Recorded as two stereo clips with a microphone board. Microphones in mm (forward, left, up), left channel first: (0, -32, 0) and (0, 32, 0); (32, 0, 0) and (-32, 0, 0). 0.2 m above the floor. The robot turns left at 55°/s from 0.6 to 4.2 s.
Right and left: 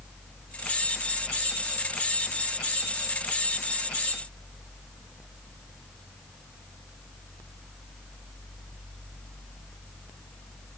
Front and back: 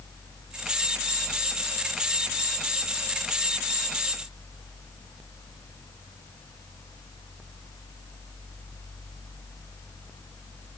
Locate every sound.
Only background noise.